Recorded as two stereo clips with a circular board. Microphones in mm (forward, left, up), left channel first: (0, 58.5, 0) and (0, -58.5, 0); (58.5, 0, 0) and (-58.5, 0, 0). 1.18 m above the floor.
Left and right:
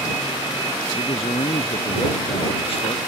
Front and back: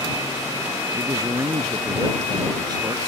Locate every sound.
0.9 s a man speaking: 120° left; by 3.0 s 125° left